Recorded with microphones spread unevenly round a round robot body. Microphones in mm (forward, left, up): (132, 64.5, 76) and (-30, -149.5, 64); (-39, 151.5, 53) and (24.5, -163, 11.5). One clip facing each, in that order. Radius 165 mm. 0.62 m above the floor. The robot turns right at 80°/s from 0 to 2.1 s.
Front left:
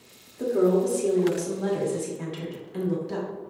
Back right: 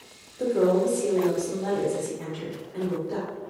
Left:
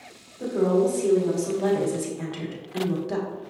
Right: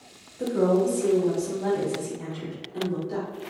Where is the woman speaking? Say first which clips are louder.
Even, left 1 dB; 40° right, 1.6 m; by 3.3 s 95° left, 1.6 m.